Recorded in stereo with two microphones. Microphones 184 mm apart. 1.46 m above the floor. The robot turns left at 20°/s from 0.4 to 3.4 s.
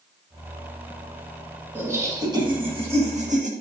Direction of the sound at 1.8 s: 10° right.